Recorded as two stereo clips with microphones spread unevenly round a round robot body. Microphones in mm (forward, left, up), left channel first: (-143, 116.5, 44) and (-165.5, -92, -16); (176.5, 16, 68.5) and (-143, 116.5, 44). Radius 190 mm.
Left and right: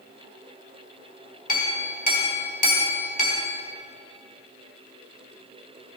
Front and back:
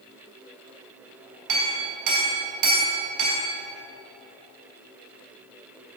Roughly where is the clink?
Behind left.